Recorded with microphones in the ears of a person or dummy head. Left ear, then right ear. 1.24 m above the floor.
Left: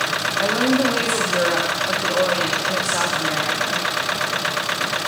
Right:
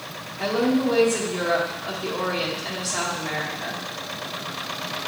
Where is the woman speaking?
20° left (ahead or behind), 1.2 m.